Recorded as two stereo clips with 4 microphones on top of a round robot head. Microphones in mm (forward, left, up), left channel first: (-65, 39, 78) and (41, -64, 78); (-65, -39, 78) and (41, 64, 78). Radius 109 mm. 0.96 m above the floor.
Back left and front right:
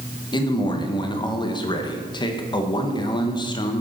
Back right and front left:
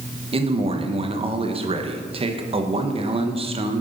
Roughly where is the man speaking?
Left.